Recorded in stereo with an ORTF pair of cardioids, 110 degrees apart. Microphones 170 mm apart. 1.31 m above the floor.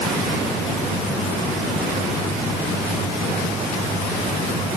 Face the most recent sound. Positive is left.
No sound to turn to.